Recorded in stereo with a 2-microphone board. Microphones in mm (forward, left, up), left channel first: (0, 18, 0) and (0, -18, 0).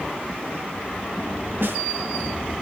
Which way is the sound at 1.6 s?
70° right (ahead or behind).